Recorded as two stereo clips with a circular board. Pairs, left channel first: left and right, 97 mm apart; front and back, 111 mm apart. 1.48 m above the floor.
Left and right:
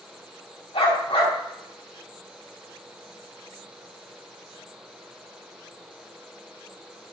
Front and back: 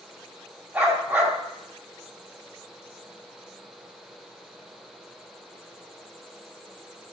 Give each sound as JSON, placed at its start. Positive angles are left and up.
{"t": 0.7, "sound": "a dog barking", "azimuth_deg": 110, "distance_m": 4.5}